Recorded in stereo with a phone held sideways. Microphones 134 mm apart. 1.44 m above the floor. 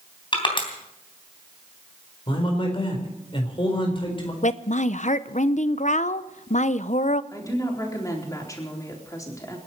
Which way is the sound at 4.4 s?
65° left (ahead or behind).